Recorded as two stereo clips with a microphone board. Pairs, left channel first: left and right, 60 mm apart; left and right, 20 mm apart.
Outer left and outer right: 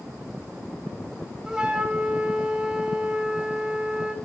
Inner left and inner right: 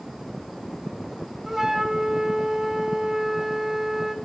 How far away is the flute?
About 2 m.